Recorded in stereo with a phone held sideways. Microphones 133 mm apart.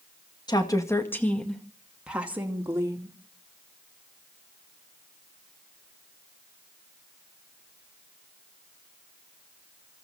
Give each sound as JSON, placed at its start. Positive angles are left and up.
{"t": 0.5, "sound": "a woman speaking", "side_deg": 35, "distance_m": 2.0}